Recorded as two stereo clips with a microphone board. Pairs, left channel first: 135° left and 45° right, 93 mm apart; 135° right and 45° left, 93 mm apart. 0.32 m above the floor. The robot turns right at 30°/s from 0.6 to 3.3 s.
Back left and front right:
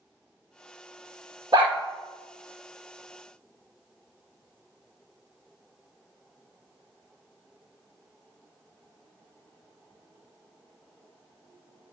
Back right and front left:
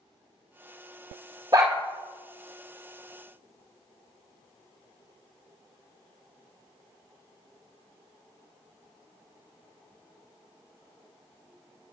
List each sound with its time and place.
1.5 s a dog barking: 5° right, 1.9 m; by 1.8 s straight ahead, 1.9 m